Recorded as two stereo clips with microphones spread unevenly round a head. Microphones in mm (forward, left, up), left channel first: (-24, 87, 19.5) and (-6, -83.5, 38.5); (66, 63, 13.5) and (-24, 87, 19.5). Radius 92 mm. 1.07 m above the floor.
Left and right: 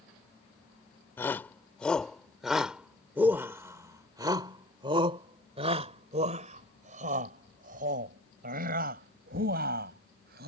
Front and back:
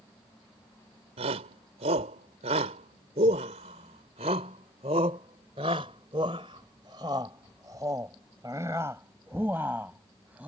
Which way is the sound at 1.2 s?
175° left.